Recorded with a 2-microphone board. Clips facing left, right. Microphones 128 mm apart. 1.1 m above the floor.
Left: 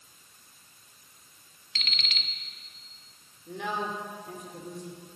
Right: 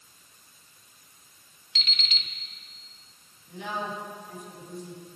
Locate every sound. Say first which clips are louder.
1.8 s an alarm clock: right 1 dB; 60° left (ahead or behind), 0.9 m
3.5 s a woman speaking: left 1 dB; 85° left, 3.5 m